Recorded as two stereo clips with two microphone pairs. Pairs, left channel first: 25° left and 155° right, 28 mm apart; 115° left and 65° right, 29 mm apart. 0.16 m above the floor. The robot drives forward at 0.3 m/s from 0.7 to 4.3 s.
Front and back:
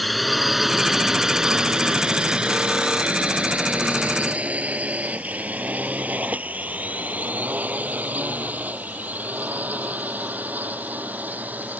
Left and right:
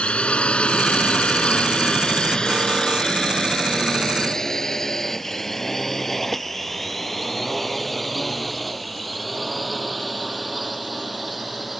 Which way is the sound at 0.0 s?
115° left.